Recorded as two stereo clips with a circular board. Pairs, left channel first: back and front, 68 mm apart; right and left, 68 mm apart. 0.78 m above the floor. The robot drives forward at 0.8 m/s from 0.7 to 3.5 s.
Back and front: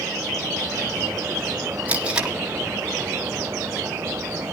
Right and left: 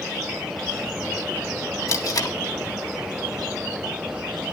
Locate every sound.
1.9 s tape being pulled: 65° right, 1.6 m; by 2.4 s 80° right, 1.5 m